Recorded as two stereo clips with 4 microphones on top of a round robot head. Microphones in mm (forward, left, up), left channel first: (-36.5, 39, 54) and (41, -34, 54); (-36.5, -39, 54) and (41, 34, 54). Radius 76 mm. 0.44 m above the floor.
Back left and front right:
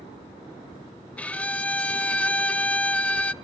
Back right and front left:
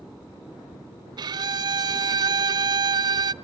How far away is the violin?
About 0.6 m.